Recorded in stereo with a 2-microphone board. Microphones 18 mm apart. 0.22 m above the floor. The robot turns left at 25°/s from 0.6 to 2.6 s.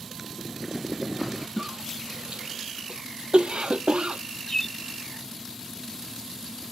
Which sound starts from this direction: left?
A bird, at 4.5 s.